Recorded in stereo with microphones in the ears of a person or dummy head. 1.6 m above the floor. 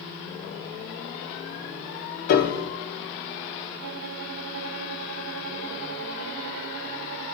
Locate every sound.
2.3 s a piano: 45° left (ahead or behind), 0.6 m
3.8 s a violin: 65° right (ahead or behind), 1.0 m